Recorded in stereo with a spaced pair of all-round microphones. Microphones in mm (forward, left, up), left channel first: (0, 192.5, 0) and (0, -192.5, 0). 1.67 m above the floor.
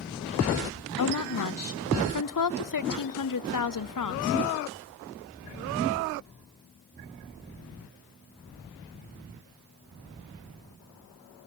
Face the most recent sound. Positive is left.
turn(degrees=55)  # may be behind; listen again after turning